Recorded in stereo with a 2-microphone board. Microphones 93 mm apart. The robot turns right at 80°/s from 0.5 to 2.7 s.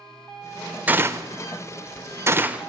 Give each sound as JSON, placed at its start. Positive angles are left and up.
{"t": 0.9, "sound": "a gunshot", "side_deg": -15, "distance_m": 0.5}